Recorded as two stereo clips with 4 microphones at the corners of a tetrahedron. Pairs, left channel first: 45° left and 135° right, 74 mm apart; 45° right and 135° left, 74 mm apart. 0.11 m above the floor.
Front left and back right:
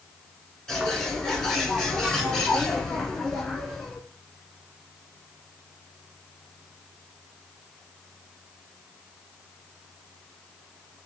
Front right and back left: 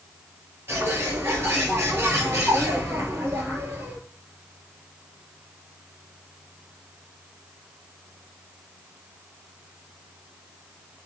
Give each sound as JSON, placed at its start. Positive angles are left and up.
{"t": 0.7, "sound": "a bird", "azimuth_deg": 125, "distance_m": 1.3}